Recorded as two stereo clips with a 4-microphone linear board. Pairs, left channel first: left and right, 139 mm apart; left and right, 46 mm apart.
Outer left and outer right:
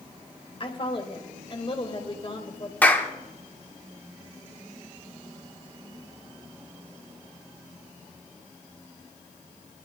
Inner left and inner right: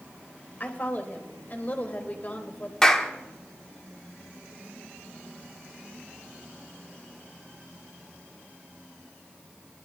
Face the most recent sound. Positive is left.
turn(degrees=10)  # may be behind; listen again after turning